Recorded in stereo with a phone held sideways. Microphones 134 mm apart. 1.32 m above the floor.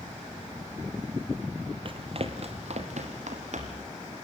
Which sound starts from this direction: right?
Running footsteps, at 1.9 s.